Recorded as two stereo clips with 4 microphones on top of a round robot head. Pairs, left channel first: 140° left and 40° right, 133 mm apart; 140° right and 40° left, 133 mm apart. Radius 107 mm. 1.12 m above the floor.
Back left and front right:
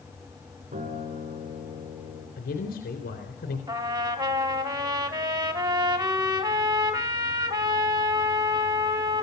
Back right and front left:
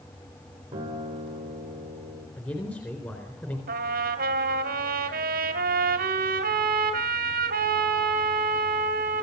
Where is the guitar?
20° right, 7.5 m.